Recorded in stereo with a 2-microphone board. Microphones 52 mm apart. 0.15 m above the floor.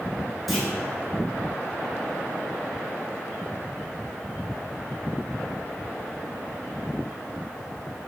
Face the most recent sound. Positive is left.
turn(degrees=0)  # may be behind; listen again after turning